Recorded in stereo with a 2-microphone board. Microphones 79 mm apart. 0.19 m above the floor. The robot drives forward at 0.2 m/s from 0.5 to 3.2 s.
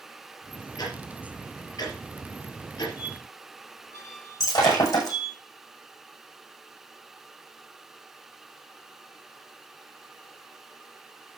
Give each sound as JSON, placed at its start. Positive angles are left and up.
{"t": 0.8, "sound": "ticking", "side_deg": 50, "distance_m": 4.5}
{"t": 3.0, "sound": "a squeak", "side_deg": 40, "distance_m": 7.0}
{"t": 4.4, "sound": "breaking glass", "side_deg": 45, "distance_m": 7.0}